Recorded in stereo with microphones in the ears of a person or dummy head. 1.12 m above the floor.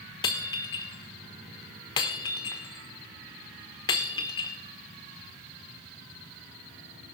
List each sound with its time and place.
0.2 s breaking glass: 25° left (ahead or behind), 1.1 m